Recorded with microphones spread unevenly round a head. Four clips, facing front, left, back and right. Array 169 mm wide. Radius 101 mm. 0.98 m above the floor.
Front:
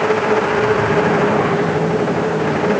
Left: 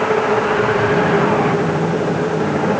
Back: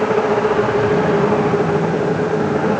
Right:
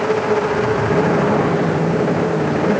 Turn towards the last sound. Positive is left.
No sound to turn to.